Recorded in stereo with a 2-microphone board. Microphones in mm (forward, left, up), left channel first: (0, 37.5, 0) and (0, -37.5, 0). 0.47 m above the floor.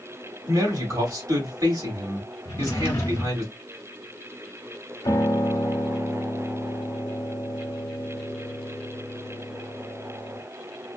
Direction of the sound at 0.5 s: 50° right (ahead or behind).